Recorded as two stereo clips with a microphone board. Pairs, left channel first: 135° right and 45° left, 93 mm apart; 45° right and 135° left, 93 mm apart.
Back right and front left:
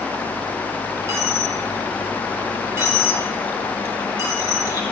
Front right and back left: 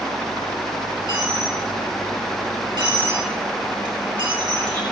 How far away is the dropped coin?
About 3.5 m.